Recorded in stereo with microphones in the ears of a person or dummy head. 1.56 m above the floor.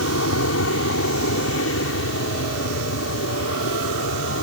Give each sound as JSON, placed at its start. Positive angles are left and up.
{"t": 0.0, "sound": "an aircraft", "side_deg": 70}